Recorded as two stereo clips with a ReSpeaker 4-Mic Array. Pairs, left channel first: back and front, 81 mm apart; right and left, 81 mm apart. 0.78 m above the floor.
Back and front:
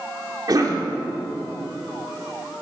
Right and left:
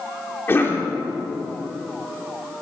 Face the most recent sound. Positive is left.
turn(degrees=-30)